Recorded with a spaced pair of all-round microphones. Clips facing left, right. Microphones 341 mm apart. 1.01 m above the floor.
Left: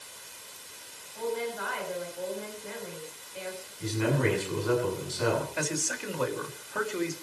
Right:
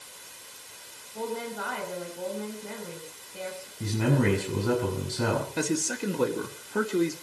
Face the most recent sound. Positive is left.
turn(degrees=-45)  # may be behind; listen again after turning